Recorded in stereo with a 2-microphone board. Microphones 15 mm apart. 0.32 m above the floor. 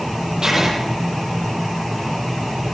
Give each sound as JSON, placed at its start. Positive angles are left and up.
{"t": 0.4, "sound": "writing", "side_deg": -40, "distance_m": 10.0}